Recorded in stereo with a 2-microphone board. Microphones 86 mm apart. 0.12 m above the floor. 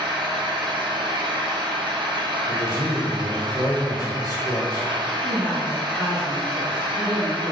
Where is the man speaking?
35° left (ahead or behind), 1.3 m.